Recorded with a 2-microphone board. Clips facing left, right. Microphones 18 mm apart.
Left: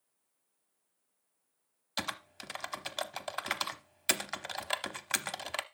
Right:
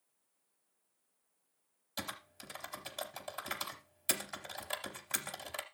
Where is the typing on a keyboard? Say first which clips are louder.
Left 6 dB; 35° left (ahead or behind), 0.7 m.